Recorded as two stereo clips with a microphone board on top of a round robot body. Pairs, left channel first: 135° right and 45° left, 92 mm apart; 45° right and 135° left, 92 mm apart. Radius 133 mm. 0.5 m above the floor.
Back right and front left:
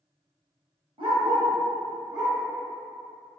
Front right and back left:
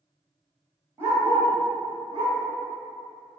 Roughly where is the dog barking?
Left.